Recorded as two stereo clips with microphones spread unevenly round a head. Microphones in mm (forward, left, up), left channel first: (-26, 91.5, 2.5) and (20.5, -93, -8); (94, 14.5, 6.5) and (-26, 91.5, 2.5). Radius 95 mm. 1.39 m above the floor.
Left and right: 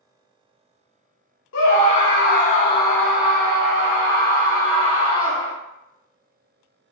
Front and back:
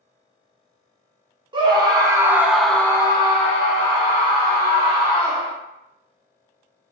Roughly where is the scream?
Left.